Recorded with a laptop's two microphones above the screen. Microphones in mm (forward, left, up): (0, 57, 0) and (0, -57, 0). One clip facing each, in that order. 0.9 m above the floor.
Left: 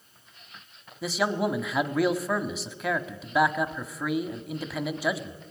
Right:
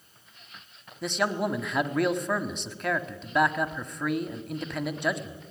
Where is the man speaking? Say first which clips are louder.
Left 1 dB; 5° left (ahead or behind), 1.5 m.